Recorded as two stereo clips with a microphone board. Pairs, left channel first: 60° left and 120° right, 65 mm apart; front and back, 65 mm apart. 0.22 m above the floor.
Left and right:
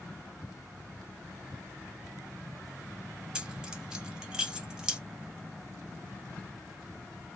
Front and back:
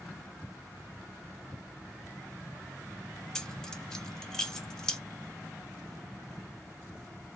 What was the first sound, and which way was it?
Keys jangling, 60° right.